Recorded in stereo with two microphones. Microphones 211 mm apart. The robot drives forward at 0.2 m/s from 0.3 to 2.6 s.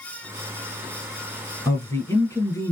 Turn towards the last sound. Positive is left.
turn(degrees=15)  # may be behind; listen again after turning